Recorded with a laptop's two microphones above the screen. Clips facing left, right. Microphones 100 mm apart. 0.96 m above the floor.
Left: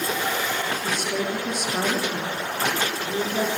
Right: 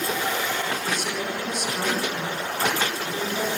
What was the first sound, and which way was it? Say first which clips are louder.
A woman speaking: left 2 dB; 50° left (ahead or behind).